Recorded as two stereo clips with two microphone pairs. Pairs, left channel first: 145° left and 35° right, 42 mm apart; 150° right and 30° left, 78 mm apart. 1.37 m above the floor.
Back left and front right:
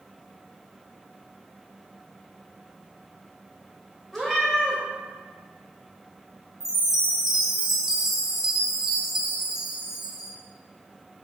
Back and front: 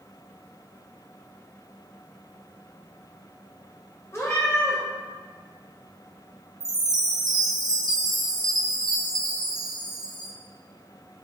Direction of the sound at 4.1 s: 140° right.